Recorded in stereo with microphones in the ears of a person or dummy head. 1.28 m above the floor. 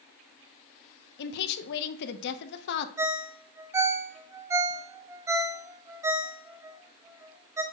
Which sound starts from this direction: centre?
A ringtone, at 3.0 s.